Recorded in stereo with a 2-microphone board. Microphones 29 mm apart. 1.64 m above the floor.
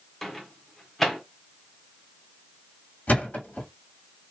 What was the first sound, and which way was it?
A microwave, 10° left (ahead or behind).